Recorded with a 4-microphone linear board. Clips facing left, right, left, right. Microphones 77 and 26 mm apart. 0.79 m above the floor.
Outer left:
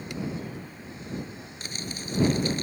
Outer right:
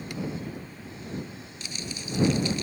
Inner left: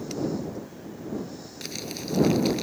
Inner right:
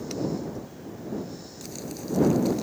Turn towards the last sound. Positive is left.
turn(degrees=45)  # may be behind; listen again after turning